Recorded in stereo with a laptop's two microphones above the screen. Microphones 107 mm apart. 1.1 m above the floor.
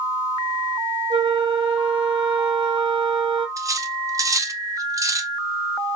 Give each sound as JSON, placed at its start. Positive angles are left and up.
{"t": 1.1, "sound": "a flute", "side_deg": -55, "distance_m": 1.4}
{"t": 3.6, "sound": "cutlery clinking", "side_deg": -30, "distance_m": 0.6}